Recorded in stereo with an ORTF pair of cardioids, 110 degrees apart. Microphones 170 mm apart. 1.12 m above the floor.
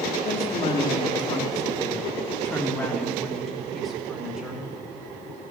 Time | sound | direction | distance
0.2 | a woman speaking | 40° left | 2 m